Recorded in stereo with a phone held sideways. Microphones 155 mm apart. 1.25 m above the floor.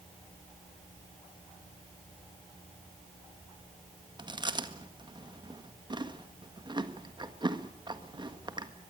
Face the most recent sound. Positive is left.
turn(degrees=-30)  # may be behind; listen again after turning